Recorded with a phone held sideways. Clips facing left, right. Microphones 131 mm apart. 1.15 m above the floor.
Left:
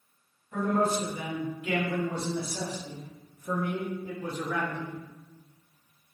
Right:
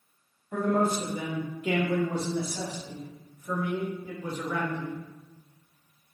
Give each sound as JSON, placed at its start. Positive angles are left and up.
{"t": 0.5, "sound": "a man speaking", "side_deg": -65, "distance_m": 1.1}